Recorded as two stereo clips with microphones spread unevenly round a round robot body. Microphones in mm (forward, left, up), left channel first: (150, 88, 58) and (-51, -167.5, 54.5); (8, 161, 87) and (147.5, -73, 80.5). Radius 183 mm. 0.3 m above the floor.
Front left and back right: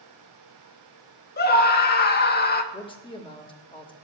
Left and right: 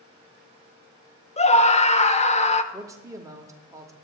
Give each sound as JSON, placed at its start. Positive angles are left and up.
{"t": 1.4, "sound": "a scream", "azimuth_deg": 75, "distance_m": 0.9}
{"t": 2.7, "sound": "a man speaking", "azimuth_deg": 0, "distance_m": 1.0}